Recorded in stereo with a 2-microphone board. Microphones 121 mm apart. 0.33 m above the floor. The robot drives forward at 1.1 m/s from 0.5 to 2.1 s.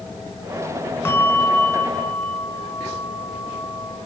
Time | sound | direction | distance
1.1 | a bell | 20° left (ahead or behind) | 2 m